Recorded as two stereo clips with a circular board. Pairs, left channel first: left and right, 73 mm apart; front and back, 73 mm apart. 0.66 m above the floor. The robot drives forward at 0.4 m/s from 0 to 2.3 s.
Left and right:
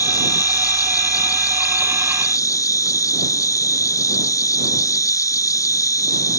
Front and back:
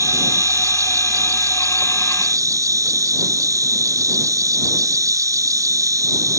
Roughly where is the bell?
I don't hear a bell.